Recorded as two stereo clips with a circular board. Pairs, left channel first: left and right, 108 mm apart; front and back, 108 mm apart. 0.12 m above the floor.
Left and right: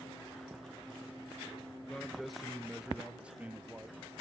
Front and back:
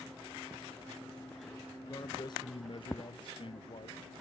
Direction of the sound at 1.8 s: 10° left.